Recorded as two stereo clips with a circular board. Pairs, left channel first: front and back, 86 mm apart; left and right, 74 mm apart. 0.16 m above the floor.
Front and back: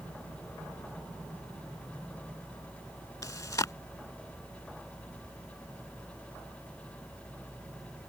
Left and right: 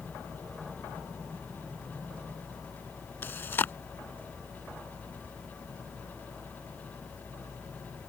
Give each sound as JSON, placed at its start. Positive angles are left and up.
{"t": 3.2, "sound": "chewing", "azimuth_deg": 35}